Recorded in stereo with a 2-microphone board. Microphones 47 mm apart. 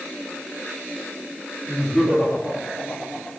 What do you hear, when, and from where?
1.7 s laughter: 30° left (ahead or behind), 7 m; by 3.3 s 40° left (ahead or behind), 6.5 m